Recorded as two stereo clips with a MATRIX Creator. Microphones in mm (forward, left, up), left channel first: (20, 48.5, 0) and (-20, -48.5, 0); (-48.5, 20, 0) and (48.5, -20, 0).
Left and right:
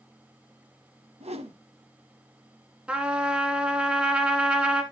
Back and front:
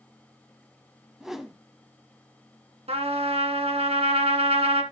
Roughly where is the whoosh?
Right.